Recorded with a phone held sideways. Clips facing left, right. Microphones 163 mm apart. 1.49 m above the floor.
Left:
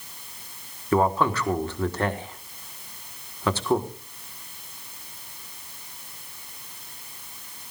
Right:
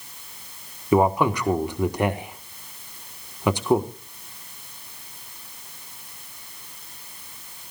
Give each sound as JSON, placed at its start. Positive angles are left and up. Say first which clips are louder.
{"t": 0.9, "sound": "a man speaking", "louder": "right 3 dB", "side_deg": -15, "distance_m": 1.3}